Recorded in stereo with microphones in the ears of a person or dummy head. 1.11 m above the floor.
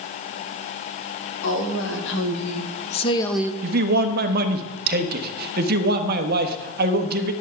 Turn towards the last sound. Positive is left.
turn(degrees=-55)  # may be behind; listen again after turning